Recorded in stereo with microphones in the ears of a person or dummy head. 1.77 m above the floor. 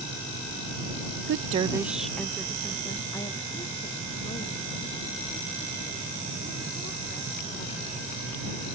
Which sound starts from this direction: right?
A woman speaking, at 1.3 s.